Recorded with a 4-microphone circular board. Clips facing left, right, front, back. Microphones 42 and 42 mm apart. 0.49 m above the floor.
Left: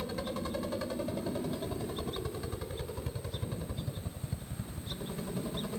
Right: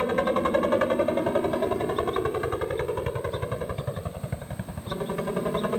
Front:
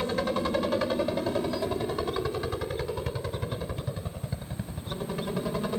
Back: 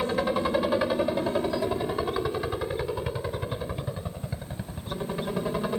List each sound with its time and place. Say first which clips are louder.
0.0 s a helicopter: right 13 dB, back 2 dB; 105° right